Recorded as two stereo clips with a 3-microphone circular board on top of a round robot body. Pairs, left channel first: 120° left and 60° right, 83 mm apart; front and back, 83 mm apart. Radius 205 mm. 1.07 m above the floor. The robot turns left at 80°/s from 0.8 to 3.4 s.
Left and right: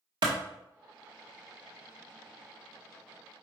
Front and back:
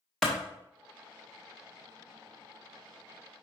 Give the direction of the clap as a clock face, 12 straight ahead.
3 o'clock.